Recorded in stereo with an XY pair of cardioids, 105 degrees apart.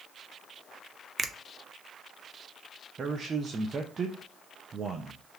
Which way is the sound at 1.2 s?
35° right.